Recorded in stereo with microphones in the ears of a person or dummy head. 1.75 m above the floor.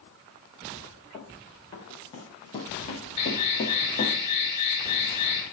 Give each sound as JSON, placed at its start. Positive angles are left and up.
{"t": 1.1, "sound": "running footsteps", "side_deg": 25, "distance_m": 4.5}
{"t": 3.2, "sound": "an alarm", "side_deg": 30, "distance_m": 5.0}